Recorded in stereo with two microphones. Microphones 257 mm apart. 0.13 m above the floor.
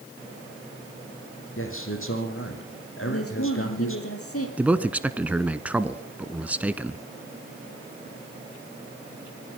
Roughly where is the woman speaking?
Left.